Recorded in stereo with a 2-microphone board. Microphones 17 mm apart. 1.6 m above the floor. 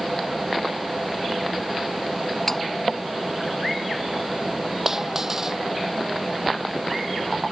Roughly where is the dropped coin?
Right.